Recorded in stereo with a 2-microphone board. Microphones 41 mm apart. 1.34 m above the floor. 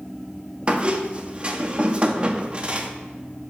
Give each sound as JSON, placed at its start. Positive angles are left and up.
{"t": 0.7, "sound": "a squeak", "side_deg": -30, "distance_m": 0.8}